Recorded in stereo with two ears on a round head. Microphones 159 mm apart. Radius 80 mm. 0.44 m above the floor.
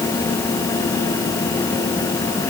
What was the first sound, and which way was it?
Only background noise.